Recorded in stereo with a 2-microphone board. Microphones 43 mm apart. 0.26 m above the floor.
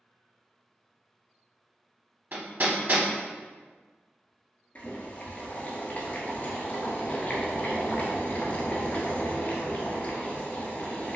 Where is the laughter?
I don't hear laughter.